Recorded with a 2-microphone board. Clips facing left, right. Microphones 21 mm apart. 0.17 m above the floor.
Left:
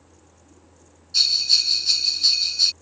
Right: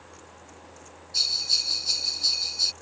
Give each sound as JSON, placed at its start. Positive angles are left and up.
{"t": 1.1, "sound": "a bell", "side_deg": 30}